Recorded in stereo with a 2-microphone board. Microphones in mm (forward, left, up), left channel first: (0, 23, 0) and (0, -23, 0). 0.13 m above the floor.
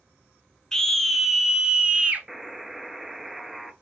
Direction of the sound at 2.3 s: 5° right (ahead or behind).